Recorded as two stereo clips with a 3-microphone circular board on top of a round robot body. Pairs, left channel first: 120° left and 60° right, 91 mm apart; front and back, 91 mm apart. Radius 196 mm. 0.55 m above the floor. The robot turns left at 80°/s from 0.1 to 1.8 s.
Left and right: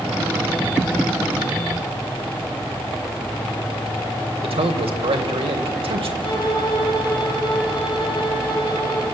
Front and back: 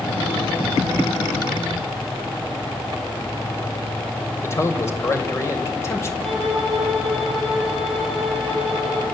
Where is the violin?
90° left, 8 m.